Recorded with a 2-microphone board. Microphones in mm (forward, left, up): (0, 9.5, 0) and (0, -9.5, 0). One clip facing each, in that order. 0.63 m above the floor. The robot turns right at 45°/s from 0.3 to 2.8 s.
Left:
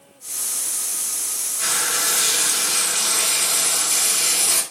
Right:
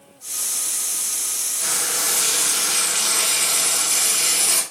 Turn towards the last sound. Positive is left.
turn(degrees=-175)